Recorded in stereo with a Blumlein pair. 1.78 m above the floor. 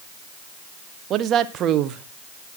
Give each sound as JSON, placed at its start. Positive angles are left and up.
{"t": 1.1, "sound": "a woman speaking", "azimuth_deg": -30, "distance_m": 1.3}